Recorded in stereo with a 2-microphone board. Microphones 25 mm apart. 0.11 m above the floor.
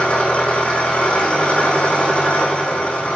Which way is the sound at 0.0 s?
40° left (ahead or behind).